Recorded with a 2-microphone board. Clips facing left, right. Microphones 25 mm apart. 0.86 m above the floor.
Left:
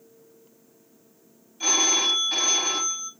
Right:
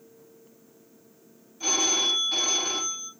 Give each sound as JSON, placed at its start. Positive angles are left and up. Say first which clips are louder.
{"t": 1.6, "sound": "a phone ringing", "louder": "left 3 dB", "side_deg": 55, "distance_m": 2.0}